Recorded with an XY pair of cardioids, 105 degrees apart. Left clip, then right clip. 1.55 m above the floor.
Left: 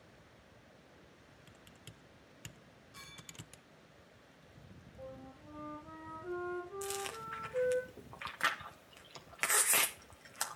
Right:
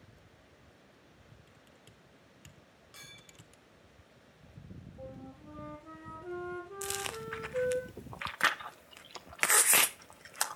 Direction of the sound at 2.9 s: 65° right.